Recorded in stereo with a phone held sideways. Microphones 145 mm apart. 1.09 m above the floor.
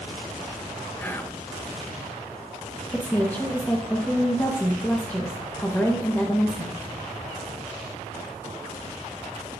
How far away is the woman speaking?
About 1.1 m.